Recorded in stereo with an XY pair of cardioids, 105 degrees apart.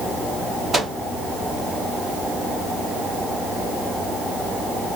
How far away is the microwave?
About 2.5 m.